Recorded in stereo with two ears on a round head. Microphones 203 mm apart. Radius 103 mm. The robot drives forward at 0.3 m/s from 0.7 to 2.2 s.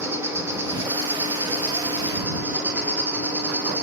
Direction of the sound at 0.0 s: 10° right (ahead or behind).